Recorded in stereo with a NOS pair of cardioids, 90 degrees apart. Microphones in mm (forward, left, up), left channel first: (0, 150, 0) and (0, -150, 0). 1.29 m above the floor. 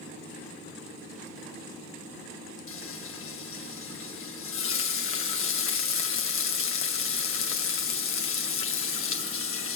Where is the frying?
45° left, 1.7 m.